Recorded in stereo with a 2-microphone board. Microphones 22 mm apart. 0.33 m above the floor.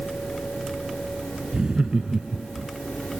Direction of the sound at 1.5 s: 40° right (ahead or behind).